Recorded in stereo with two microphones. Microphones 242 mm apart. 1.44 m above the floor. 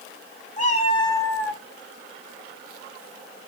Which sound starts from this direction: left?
A cat meowing, at 0.6 s.